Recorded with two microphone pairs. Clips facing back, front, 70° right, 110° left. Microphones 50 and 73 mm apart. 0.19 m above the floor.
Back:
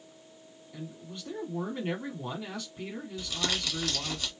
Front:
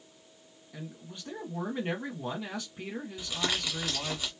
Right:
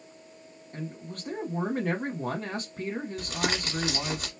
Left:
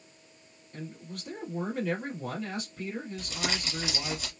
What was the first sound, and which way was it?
A man speaking, 80° right.